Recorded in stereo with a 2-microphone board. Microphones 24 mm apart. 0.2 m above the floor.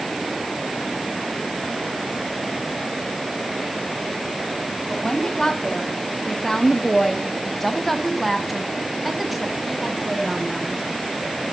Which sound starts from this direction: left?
A woman speaking, at 4.9 s.